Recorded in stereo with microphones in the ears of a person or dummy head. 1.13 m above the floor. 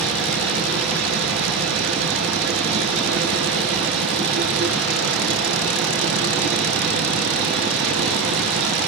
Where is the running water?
65° right (ahead or behind), 10 m.